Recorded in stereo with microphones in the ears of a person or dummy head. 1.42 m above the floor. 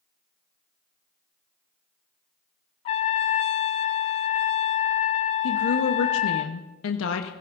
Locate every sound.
2.9 s a trumpet: 25° left (ahead or behind), 0.7 m
5.4 s a woman speaking: 80° left, 1.2 m